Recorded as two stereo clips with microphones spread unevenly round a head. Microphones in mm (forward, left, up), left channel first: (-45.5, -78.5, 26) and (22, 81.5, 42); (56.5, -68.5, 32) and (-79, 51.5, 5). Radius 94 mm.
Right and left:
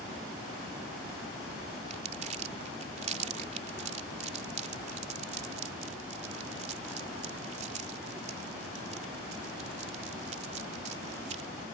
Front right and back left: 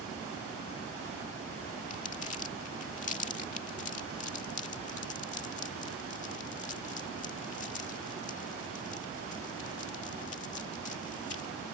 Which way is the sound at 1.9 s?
10° left.